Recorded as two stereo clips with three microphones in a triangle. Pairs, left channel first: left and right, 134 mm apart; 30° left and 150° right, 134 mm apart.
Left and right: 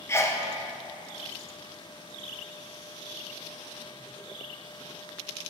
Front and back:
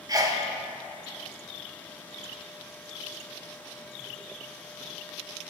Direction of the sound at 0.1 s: 155° left.